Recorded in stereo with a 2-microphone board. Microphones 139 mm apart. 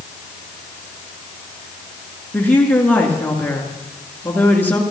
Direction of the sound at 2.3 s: 15° left (ahead or behind).